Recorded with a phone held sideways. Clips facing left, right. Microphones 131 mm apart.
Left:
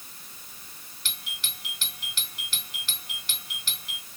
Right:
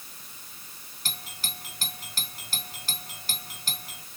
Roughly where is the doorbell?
Right.